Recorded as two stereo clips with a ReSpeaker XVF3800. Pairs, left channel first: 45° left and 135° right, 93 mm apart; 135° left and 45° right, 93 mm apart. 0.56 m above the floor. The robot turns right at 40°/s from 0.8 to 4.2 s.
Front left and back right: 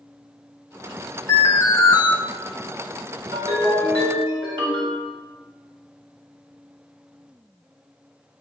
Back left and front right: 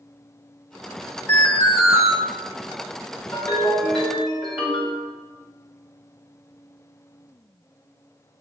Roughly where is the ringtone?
Behind.